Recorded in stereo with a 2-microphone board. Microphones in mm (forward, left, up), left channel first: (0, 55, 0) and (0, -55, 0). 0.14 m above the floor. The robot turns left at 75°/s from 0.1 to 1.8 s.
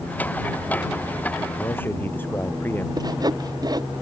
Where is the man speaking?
35° left (ahead or behind); by 2.9 s 20° left (ahead or behind).